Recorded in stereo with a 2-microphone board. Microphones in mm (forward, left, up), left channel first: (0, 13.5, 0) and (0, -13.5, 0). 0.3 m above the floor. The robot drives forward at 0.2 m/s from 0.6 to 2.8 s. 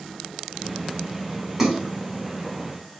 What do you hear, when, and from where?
1.6 s a splash: 20° right (ahead or behind), 1.4 m